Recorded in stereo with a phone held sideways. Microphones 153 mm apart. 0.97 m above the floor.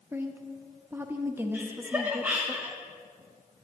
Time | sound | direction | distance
0.1 | a woman speaking | 15° right (ahead or behind) | 0.8 m
1.5 | laughter | 10° right (ahead or behind) | 0.7 m